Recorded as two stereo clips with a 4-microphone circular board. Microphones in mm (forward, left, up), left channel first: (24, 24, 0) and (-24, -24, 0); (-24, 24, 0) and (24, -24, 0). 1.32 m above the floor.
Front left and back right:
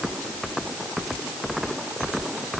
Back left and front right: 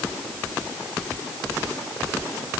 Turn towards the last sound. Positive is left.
No sound to turn to.